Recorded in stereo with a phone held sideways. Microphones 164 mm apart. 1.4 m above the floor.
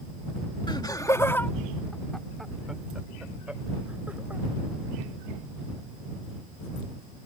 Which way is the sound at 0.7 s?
30° left (ahead or behind).